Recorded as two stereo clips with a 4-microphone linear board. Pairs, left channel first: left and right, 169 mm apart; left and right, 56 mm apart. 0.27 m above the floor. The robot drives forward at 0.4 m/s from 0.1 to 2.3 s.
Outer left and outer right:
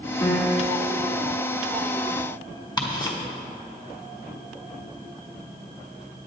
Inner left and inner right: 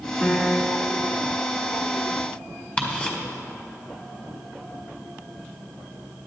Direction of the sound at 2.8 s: 25° left (ahead or behind).